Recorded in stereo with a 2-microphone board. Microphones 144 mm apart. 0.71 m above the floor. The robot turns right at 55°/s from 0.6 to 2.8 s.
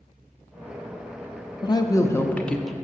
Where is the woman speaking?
120° left, 0.5 m; by 2.7 s straight behind, 0.5 m.